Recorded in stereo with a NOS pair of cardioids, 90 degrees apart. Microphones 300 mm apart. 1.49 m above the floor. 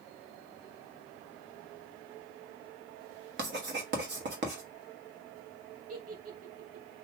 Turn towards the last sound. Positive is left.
turn(degrees=-50)